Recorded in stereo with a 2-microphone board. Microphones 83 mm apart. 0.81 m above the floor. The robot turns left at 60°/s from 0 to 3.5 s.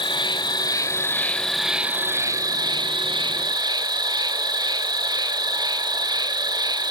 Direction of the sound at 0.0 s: 95° left.